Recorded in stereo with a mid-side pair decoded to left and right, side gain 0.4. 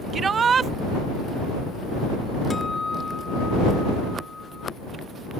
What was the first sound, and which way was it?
A shout, 50° right.